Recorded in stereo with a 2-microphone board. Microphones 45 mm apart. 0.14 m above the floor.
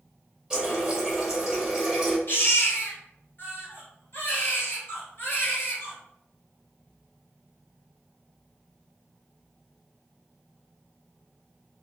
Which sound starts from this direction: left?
A baby crying, at 2.3 s.